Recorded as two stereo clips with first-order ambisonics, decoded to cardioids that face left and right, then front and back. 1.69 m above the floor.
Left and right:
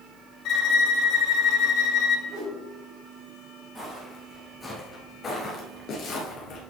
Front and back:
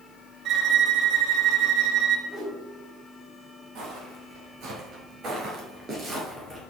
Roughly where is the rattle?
I don't hear a rattle.